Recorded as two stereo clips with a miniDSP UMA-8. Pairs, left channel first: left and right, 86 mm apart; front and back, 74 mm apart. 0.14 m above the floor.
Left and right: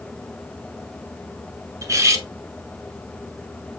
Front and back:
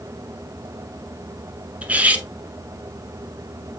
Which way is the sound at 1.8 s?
115° right.